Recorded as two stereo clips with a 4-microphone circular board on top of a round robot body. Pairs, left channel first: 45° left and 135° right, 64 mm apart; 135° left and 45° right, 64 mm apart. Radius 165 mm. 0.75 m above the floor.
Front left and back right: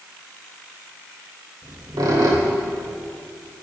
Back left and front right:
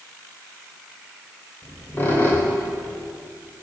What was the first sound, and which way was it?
A squeak, 165° right.